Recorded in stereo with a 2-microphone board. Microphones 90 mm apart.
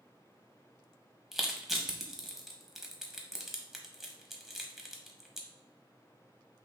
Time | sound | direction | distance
1.3 | crushing | 5° right (ahead or behind) | 0.8 m